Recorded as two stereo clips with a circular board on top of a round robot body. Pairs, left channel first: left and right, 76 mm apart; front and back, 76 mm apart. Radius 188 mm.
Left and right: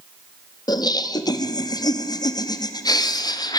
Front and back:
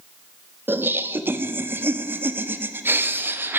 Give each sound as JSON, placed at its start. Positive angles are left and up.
{"t": 0.7, "sound": "laughter", "azimuth_deg": 120, "distance_m": 1.4}